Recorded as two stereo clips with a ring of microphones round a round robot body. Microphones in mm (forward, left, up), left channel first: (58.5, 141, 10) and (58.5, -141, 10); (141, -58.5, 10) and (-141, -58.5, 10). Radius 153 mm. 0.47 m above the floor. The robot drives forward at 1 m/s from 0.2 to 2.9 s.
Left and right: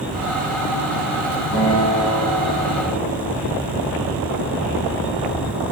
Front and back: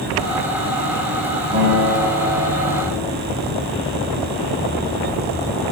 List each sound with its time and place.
1.5 s a guitar: 120° left, 3.5 m; by 3.3 s 135° left, 4.5 m